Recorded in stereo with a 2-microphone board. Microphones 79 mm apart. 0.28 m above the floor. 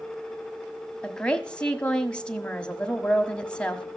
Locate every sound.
1.0 s a woman speaking: 10° left (ahead or behind), 1.5 m